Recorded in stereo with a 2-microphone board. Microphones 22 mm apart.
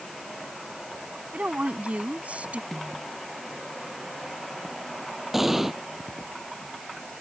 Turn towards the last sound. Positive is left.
turn(degrees=-15)  # may be behind; listen again after turning